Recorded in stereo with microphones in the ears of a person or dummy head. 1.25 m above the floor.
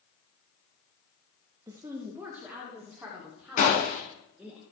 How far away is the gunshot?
About 2 m.